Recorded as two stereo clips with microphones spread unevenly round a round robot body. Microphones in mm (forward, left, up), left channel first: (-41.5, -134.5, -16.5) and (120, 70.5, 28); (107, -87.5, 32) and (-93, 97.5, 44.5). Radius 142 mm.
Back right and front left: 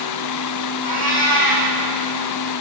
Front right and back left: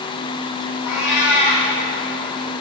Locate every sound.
0.8 s a cat meowing: 70° right, 6.5 m